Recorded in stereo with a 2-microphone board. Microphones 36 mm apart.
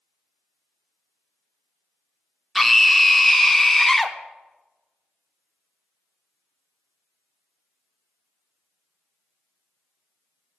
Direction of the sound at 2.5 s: Centre (ahead or behind).